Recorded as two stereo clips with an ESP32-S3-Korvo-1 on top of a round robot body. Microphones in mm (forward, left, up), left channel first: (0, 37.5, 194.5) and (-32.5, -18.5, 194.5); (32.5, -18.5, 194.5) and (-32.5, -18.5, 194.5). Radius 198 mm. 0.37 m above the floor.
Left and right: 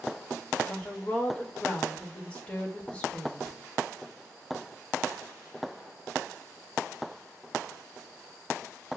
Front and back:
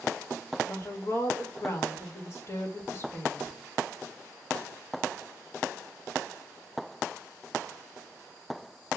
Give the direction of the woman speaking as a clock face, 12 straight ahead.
12 o'clock.